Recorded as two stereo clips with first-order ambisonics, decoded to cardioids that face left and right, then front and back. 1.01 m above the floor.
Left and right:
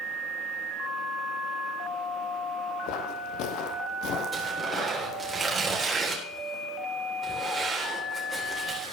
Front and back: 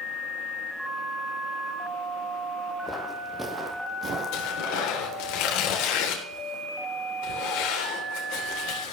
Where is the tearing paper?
15° right, 3 m.